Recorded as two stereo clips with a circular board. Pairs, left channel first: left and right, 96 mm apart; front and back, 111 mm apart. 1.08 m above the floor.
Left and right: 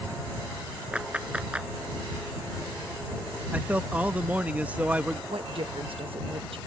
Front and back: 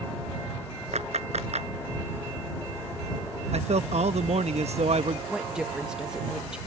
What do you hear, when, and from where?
0.9 s a clap: 170° right
3.5 s a man speaking: 165° right
5.3 s a woman speaking: 95° right